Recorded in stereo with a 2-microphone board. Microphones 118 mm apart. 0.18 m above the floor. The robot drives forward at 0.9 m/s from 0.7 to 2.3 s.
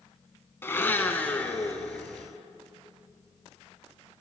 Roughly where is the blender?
Centre.